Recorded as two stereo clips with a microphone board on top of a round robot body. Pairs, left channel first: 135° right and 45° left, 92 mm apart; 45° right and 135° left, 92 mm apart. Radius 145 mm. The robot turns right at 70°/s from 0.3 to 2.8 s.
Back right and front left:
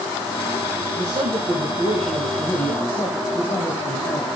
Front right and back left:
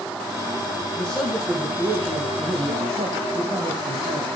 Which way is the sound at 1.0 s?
30° left.